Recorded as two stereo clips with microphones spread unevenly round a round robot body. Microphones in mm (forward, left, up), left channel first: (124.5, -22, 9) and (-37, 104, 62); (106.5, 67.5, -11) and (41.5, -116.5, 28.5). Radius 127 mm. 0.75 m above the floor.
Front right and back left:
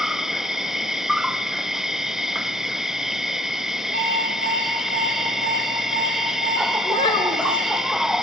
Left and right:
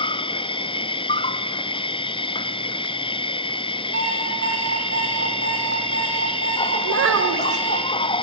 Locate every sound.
0.0 s an insect: 40° left, 0.9 m
3.9 s an alarm clock: 155° right, 9 m
6.8 s a child speaking: 105° right, 2.5 m